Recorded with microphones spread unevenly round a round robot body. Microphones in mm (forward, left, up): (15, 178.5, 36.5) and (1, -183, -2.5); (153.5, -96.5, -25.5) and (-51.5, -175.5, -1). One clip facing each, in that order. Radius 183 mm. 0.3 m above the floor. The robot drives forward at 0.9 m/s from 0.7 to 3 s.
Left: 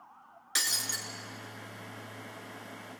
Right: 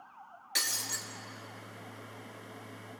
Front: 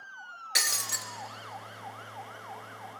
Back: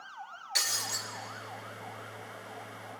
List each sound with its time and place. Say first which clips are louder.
0.6 s breaking glass: left 1 dB, front 1 dB; straight ahead, 2.5 m